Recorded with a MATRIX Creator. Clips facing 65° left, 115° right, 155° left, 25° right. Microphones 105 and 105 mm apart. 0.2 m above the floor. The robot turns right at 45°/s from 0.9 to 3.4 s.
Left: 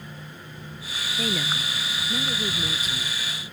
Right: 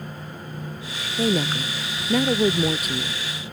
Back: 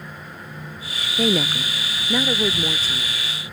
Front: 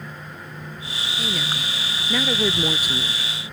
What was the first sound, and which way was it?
A woman speaking, 170° right.